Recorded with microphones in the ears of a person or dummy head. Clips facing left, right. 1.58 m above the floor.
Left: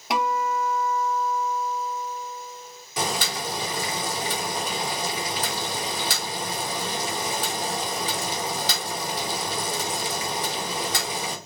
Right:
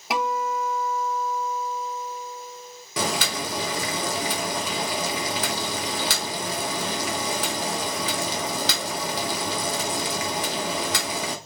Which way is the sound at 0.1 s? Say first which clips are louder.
Left 1 dB; centre (ahead or behind).